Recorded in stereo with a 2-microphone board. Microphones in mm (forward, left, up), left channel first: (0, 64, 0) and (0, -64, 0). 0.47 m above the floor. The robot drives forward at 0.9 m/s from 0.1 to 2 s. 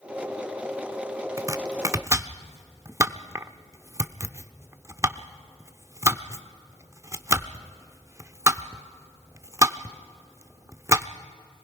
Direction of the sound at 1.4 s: 25° right (ahead or behind).